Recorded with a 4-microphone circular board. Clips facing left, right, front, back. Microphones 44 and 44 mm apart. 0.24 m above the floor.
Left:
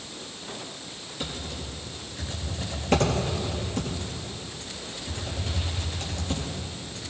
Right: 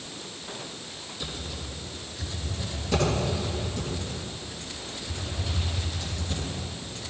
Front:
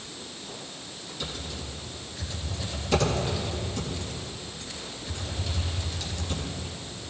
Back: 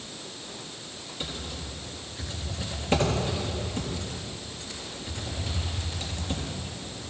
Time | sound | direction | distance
1.2 | typing on a keyboard | 125° left | 4 m